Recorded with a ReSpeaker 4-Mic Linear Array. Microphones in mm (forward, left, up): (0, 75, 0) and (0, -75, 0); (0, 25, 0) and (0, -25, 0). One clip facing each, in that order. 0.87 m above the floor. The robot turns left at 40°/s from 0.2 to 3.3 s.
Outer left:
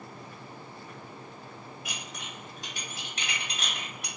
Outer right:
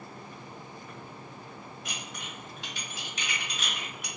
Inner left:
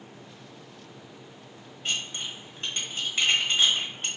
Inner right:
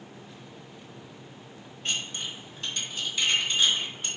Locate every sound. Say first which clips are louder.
1.9 s dishes clattering: even, inner left 1 dB; 5° left (ahead or behind), 1.2 m; by 4.1 s 65° left (ahead or behind), 1.2 m